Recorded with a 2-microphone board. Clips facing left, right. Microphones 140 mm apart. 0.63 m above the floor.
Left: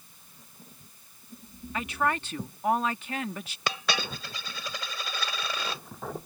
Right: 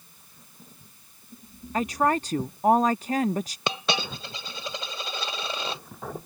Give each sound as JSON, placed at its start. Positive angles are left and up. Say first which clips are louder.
{"t": 1.7, "sound": "a woman speaking", "louder": "right 5 dB", "side_deg": -40}
{"t": 3.7, "sound": "a dropped coin", "louder": "left 1 dB", "side_deg": -25}